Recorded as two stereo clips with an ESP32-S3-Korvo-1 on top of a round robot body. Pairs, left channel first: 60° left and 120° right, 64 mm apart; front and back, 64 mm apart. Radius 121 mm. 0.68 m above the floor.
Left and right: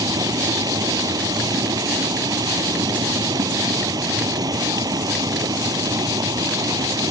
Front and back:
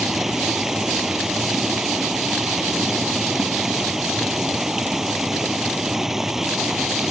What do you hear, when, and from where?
0.0 s running water: 95° right